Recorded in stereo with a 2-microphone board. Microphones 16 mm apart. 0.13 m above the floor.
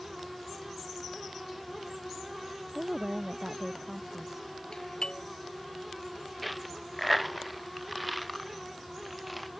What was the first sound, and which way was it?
A woman speaking, 50° right (ahead or behind).